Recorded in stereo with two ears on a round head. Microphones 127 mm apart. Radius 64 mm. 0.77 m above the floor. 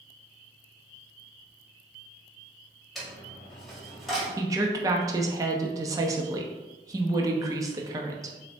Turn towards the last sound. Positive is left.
turn(degrees=-25)  # may be behind; listen again after turning